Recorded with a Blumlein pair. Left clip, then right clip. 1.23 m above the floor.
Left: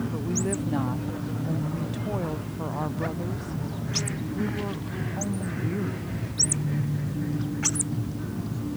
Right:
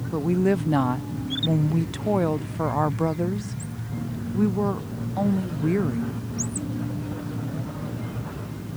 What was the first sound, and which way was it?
A woman speaking, 25° right.